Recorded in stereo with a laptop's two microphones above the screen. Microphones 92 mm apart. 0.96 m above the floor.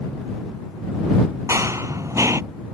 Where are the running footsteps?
35° right (ahead or behind).